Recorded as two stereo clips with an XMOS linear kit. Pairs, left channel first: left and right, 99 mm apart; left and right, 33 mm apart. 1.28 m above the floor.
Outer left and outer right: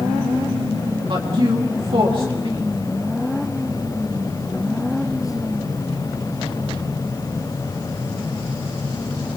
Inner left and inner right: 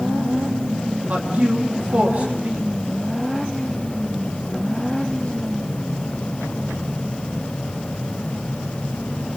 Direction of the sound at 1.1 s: 55° right (ahead or behind).